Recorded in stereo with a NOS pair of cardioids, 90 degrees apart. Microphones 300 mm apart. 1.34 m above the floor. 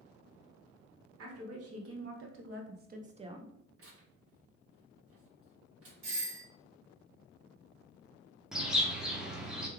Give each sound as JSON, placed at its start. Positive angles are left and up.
{"t": 1.2, "sound": "a woman speaking", "azimuth_deg": -55, "distance_m": 1.5}
{"t": 3.8, "sound": "tearing paper", "azimuth_deg": -50, "distance_m": 1.5}
{"t": 6.0, "sound": "a doorbell", "azimuth_deg": -65, "distance_m": 1.3}
{"t": 8.5, "sound": "a bird", "azimuth_deg": 0, "distance_m": 0.8}